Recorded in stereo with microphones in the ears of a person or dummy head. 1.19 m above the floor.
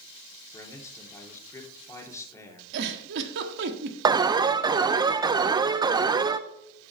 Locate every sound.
0.5 s a man speaking: 10° left (ahead or behind), 2.5 m
2.7 s a giggle: 70° right (ahead or behind), 1.4 m
4.0 s an alarm: 15° right (ahead or behind), 0.5 m